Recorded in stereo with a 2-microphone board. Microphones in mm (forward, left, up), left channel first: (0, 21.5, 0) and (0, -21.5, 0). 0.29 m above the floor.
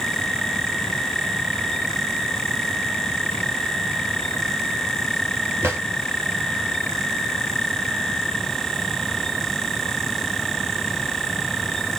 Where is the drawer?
85° right, 3 m.